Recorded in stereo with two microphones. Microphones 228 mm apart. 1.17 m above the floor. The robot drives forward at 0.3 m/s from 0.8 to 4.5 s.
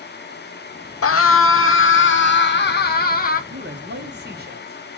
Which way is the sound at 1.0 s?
75° left (ahead or behind).